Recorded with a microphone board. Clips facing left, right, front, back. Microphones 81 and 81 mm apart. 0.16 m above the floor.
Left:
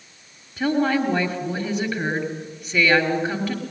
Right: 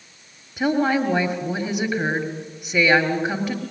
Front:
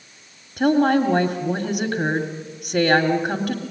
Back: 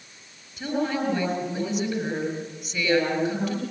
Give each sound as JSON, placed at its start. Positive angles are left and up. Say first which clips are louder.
{"t": 0.6, "sound": "a woman speaking", "louder": "right 1 dB, front 9 dB", "azimuth_deg": -10, "distance_m": 3.0}